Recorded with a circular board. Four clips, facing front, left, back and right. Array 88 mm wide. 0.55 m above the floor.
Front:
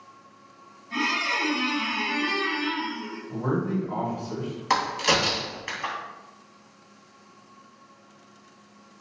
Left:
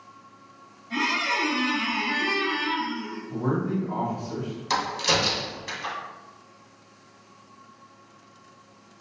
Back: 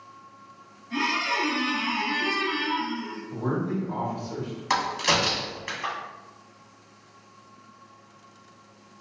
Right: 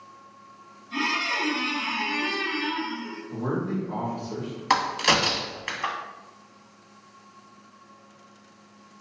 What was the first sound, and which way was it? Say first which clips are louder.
A squeak: left 2 dB, back 1 dB; 80° left.